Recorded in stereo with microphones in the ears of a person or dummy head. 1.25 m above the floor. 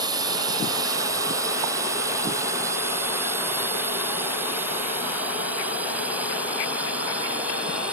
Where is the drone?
20° right (ahead or behind); by 7.9 s centre (ahead or behind).